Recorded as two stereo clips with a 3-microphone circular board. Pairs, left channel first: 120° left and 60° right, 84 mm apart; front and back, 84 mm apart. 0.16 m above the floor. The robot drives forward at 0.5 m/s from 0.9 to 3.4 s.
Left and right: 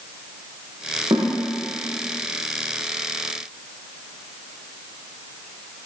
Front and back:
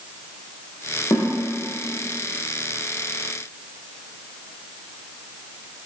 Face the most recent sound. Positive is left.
turn(degrees=-55)